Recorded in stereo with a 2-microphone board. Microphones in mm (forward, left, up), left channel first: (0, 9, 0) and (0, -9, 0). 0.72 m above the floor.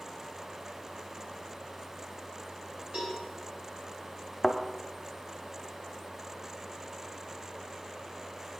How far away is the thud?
About 0.9 m.